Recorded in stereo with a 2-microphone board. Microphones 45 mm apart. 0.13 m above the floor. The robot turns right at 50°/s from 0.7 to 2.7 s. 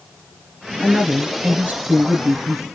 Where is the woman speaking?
Straight behind, 1.8 m; by 2.6 s 85° right, 1.8 m.